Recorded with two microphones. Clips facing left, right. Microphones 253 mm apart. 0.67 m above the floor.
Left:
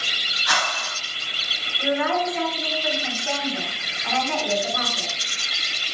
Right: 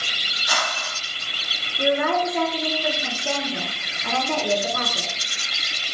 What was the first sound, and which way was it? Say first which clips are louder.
A whoosh: even; 80° left.